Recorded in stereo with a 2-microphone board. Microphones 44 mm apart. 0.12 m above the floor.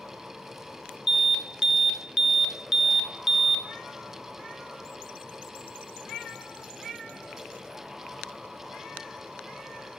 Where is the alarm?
10° right (ahead or behind), 1.0 m.